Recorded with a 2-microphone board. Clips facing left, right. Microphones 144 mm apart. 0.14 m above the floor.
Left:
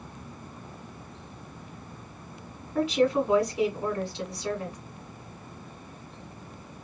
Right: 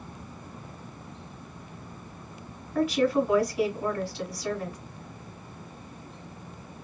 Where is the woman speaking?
20° left (ahead or behind), 1.6 m.